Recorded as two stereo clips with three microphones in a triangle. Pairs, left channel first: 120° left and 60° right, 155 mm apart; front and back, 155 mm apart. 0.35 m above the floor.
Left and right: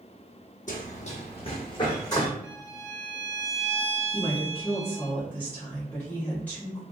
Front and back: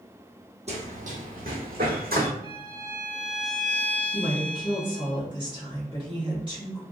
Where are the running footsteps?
140° left, 0.8 m; by 2.3 s 175° right, 1.3 m.